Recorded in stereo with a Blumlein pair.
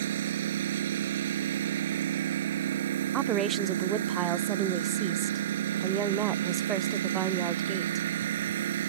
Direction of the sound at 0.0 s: 60° right.